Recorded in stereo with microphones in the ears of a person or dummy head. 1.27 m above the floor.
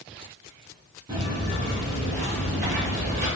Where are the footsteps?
25° right (ahead or behind), 1.7 m; by 3.3 s 40° right (ahead or behind), 1.6 m.